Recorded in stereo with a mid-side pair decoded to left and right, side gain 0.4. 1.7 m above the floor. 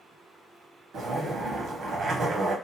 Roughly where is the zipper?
Ahead right.